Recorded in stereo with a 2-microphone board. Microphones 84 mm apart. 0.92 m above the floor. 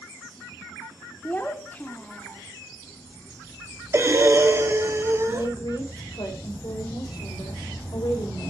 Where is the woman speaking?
55° left (ahead or behind), 4 m.